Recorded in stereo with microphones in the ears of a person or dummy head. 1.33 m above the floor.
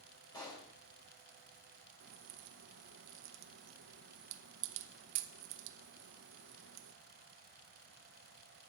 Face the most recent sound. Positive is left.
turn(degrees=-65)  # may be behind; listen again after turning